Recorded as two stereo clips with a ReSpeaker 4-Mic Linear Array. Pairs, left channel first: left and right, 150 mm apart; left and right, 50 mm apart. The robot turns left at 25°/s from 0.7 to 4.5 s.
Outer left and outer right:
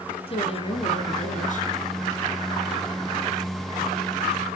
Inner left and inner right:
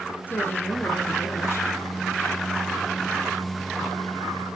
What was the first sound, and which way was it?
A woman speaking, 35° left (ahead or behind).